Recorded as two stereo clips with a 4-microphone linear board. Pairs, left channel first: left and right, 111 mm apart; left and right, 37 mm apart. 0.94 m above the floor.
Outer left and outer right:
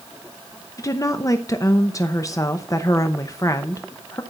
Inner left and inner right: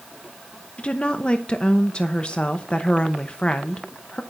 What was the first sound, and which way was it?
A woman speaking, 30° left (ahead or behind).